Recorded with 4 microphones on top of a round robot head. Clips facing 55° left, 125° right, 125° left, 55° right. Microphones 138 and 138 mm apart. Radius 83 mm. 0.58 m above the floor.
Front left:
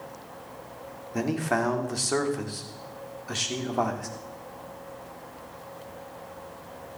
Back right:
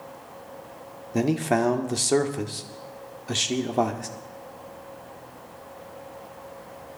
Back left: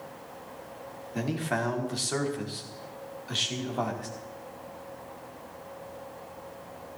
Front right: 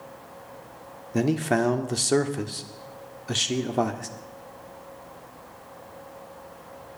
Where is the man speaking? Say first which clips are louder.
Back right 4 dB, front right 8 dB; 70° right, 1.8 m.